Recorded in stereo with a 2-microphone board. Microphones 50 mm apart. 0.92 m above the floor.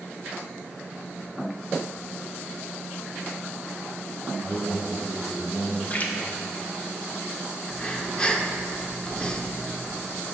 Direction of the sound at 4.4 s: 20° right (ahead or behind).